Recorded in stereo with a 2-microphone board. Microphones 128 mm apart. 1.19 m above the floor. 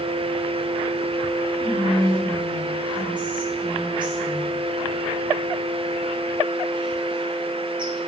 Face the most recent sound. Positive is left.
turn(degrees=-35)  # may be behind; listen again after turning